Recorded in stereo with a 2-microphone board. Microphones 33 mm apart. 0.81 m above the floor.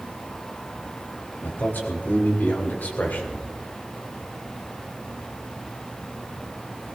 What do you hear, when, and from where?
1.4 s a man speaking: 80° left, 3 m; by 3.5 s 60° left (ahead or behind), 3 m